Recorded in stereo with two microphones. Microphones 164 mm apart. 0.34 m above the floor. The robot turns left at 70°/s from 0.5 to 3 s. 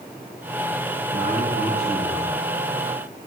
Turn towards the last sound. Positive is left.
turn(degrees=-10)